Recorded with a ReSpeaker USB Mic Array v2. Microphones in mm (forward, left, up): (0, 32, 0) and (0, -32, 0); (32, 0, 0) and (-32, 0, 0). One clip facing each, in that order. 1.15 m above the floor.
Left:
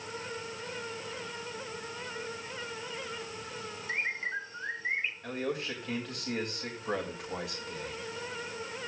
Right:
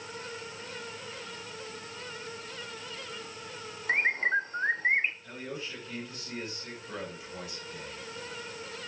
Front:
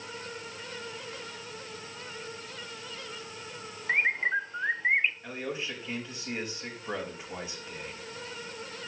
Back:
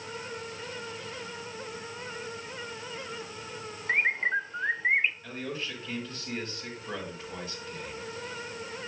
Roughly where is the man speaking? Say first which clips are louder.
Left 5 dB, front 1 dB; left.